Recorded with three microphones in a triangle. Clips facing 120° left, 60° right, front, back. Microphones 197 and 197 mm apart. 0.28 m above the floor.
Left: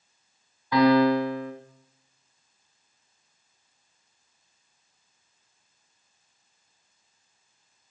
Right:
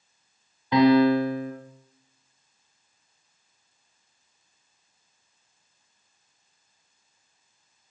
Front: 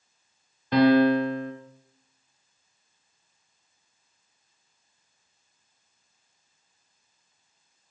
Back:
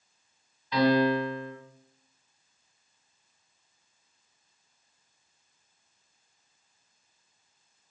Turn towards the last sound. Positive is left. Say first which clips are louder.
# right 2 dB, front 5 dB
turn(degrees=5)